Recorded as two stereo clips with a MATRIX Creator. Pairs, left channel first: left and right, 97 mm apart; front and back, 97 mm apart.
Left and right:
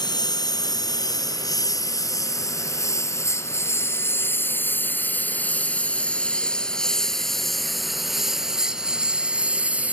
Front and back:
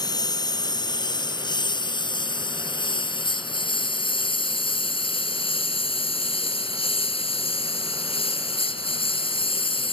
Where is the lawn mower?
45° left; by 9.9 s 15° right.